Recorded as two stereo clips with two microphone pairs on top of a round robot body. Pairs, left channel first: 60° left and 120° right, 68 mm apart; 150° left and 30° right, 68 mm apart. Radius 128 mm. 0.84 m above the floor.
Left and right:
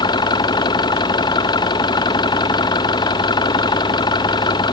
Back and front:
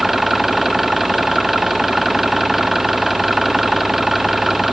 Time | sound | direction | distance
0.0 | an engine running | 55° left | ?